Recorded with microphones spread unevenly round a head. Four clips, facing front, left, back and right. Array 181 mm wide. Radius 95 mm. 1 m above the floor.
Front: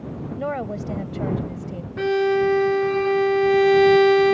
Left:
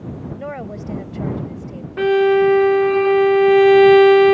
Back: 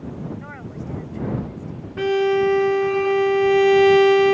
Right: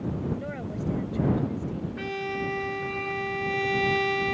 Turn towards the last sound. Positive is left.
turn(degrees=95)